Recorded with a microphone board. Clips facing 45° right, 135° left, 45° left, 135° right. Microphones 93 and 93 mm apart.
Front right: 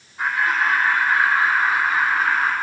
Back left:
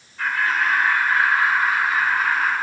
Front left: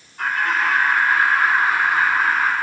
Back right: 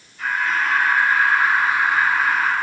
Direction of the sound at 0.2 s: 20° left.